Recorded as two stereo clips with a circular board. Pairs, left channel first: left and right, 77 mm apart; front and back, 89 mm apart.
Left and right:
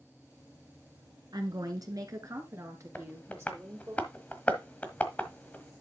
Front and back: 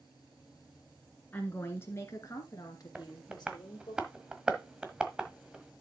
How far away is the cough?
I don't hear a cough.